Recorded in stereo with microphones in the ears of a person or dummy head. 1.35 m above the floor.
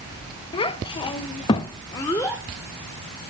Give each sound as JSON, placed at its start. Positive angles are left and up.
{"t": 0.5, "sound": "a child speaking", "side_deg": 25, "distance_m": 1.0}